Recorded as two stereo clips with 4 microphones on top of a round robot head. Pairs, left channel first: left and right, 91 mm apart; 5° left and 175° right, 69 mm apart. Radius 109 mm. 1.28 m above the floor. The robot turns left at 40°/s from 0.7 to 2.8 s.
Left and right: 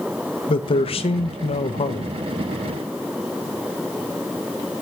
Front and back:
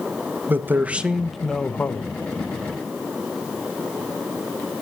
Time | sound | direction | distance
0.5 | a man speaking | 120° left | 1.2 m